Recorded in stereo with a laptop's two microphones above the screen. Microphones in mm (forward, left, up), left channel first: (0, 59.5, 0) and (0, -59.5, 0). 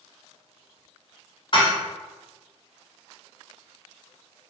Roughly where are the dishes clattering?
Left.